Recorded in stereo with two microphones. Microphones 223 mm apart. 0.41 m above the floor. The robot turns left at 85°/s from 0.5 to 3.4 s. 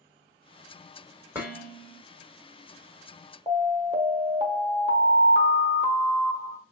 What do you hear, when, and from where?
1.4 s dishes clattering: 170° right, 1.4 m; by 2.0 s 135° left, 1.4 m
3.5 s an alarm: 25° right (ahead or behind), 1.1 m